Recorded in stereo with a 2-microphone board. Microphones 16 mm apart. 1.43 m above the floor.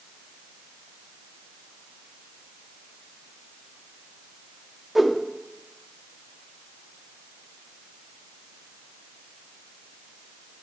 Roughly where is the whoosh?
Centre.